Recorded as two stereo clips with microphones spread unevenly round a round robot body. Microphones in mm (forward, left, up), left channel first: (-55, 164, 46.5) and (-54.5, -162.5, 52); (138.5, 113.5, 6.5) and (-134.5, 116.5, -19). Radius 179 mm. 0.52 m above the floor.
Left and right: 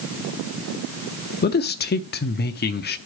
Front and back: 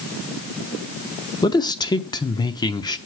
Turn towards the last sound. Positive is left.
turn(degrees=70)